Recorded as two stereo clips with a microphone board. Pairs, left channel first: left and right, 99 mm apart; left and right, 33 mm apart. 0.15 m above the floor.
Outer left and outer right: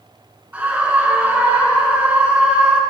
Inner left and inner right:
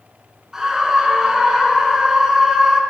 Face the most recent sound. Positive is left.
turn(degrees=-15)  # may be behind; listen again after turning